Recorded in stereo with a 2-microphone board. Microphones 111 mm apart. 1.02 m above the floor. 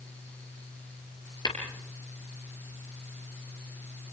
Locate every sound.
1.4 s tapping: 40° left (ahead or behind), 6 m